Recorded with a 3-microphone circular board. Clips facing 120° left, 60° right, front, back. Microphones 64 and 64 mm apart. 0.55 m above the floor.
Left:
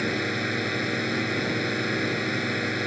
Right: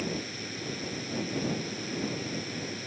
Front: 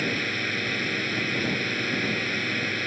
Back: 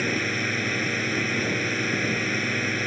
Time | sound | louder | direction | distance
0.0 | a drone | left 9 dB, back 2 dB | 100° left | ?